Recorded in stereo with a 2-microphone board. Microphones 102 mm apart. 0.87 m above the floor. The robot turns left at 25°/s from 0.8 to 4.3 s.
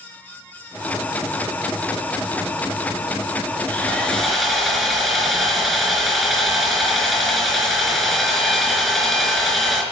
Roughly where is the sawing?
Centre.